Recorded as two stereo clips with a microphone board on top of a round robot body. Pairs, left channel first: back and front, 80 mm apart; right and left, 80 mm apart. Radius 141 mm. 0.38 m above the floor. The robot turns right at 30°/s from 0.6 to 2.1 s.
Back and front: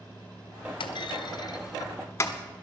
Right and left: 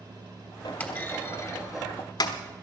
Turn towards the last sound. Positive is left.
turn(degrees=-120)